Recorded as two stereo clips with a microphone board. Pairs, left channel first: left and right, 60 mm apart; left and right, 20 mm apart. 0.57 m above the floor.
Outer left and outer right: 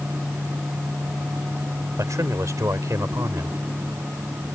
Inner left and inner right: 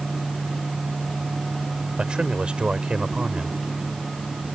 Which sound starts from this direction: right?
A man speaking, at 2.0 s.